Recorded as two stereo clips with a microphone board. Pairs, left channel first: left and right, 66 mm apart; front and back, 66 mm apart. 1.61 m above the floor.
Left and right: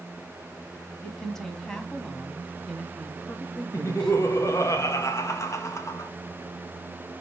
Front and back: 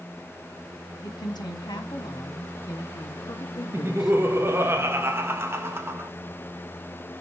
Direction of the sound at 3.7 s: 130° left.